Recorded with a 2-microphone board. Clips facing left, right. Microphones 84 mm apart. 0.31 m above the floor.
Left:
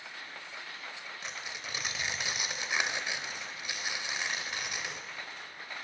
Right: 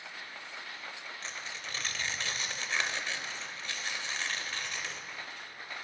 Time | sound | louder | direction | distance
1.2 | tearing paper | left 1 dB | 15° left (ahead or behind) | 0.6 m